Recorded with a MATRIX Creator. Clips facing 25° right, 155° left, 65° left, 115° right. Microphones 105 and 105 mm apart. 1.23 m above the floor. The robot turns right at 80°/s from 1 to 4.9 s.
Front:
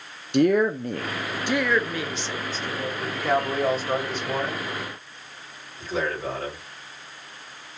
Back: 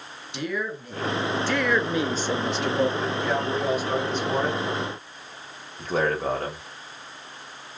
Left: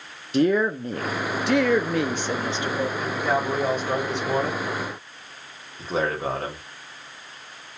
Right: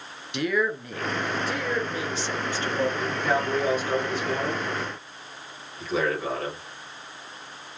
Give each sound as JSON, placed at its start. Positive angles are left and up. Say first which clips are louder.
{"t": 0.3, "sound": "a woman speaking", "louder": "front 11 dB, left 6 dB", "azimuth_deg": 15, "distance_m": 0.6}
{"t": 3.0, "sound": "a man speaking", "louder": "front 1 dB, left 1 dB", "azimuth_deg": -30, "distance_m": 1.7}